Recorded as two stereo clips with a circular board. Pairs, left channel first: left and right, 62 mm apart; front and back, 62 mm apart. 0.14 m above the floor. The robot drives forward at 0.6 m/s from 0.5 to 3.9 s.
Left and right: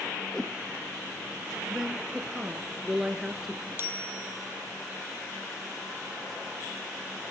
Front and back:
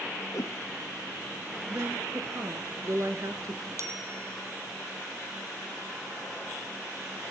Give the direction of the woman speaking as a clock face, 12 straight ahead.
6 o'clock.